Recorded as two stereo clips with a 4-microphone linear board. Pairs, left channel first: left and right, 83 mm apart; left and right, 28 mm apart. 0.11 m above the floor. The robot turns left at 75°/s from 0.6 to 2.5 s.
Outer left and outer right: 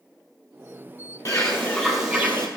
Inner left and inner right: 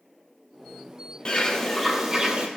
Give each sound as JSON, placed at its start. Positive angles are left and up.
{"t": 1.2, "sound": "a bird", "azimuth_deg": 55, "distance_m": 2.0}